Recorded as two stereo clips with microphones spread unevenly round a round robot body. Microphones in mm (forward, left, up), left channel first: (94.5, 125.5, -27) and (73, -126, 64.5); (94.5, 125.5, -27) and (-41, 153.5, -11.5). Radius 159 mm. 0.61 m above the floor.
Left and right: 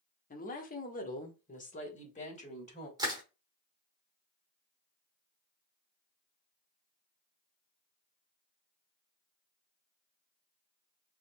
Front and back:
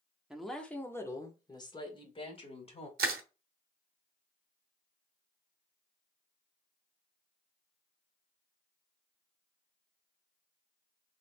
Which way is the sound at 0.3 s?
80° left.